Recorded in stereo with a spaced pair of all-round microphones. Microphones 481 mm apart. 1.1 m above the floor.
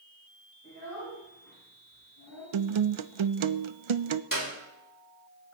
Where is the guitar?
75° right (ahead or behind), 0.6 m.